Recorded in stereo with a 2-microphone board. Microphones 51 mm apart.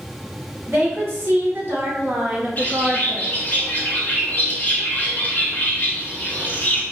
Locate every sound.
0.7 s a woman speaking: 50° right (ahead or behind), 1.9 m; by 3.5 s 30° left (ahead or behind), 0.6 m
2.6 s a bird: 35° left (ahead or behind), 0.6 m